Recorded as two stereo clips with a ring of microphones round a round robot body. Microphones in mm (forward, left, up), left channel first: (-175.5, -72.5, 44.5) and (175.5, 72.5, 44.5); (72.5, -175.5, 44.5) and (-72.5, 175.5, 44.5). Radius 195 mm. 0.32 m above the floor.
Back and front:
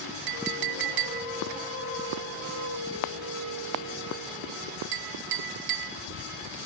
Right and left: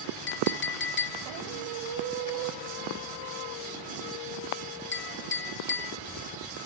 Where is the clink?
5° right, 1.7 m.